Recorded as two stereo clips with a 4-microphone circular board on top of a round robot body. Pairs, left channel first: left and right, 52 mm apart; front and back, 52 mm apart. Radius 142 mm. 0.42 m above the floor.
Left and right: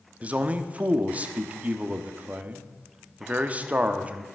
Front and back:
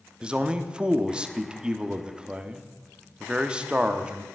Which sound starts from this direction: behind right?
A man speaking, at 0.2 s.